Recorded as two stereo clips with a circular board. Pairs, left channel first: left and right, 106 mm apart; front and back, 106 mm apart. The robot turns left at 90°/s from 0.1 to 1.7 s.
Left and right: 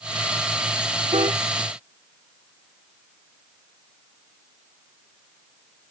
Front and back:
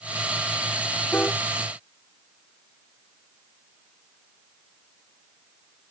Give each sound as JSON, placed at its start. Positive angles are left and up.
{"t": 1.1, "sound": "a piano", "azimuth_deg": -75}